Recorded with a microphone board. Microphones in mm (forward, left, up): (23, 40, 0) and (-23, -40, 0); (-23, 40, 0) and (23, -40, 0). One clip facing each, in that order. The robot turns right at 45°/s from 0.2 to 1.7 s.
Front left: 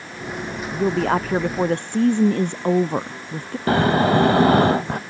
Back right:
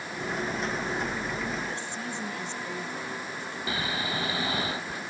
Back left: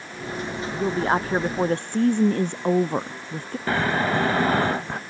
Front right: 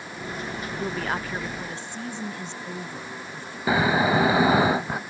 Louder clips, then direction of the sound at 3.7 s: Front left 16 dB, front right 2 dB; 20° left.